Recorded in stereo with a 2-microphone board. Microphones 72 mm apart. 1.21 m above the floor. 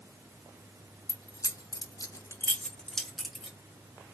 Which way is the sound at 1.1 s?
40° left (ahead or behind).